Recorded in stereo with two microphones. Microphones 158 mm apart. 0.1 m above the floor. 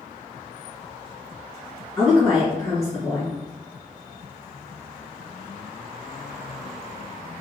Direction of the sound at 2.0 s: 20° left (ahead or behind).